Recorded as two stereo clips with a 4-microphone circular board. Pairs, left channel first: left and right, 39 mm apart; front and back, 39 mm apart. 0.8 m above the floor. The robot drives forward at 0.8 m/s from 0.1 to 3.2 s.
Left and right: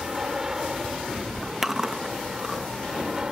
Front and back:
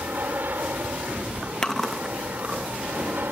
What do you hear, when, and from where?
0.0 s an aircraft: 160° right
1.6 s chewing: 30° right; by 3.2 s 170° right